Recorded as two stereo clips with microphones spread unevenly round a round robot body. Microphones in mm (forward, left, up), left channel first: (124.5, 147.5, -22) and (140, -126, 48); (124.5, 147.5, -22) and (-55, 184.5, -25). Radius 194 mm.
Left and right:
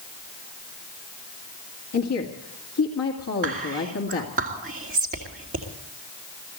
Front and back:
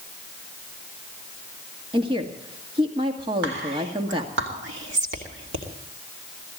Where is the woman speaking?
110° left, 2 m.